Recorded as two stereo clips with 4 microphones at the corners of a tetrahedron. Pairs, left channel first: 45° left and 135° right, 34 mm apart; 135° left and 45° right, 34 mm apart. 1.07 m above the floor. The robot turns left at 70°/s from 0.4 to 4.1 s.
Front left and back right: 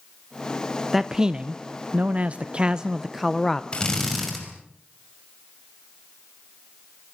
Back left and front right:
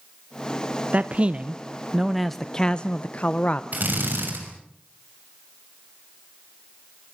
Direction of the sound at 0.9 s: 50° right.